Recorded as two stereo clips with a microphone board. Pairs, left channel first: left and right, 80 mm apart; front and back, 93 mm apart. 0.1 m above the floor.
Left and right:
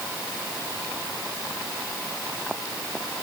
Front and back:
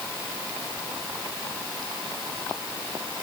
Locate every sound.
Only background noise.